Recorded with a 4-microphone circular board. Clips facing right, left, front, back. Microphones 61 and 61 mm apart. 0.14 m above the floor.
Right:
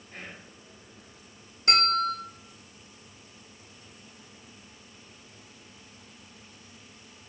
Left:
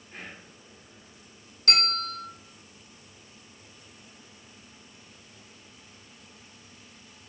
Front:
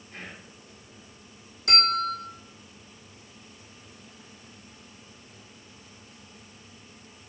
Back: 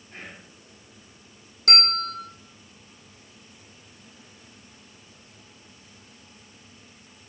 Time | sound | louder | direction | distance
0.1 | whispering | even, even | 155° left | 1.4 m
1.7 | a bell | right 5 dB, front 1 dB | 160° right | 1.4 m